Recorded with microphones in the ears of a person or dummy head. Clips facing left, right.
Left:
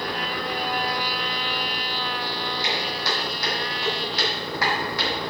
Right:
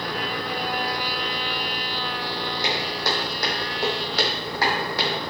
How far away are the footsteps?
About 4.5 m.